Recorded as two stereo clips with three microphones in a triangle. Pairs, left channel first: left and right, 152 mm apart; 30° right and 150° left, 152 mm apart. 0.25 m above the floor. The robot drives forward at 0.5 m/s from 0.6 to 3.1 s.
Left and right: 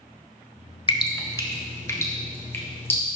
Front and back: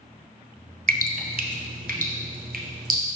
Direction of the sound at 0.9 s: 145° left.